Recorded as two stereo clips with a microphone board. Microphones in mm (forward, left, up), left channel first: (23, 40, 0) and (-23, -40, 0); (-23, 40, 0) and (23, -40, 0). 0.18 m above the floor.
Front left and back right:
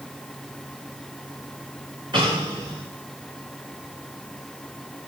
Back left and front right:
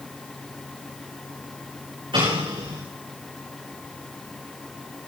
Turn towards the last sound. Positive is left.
turn(degrees=-90)